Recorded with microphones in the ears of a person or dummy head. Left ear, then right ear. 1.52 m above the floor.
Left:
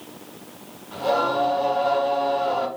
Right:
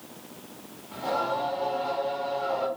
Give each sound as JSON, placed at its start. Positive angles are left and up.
{"t": 0.9, "sound": "singing", "side_deg": 35, "distance_m": 2.5}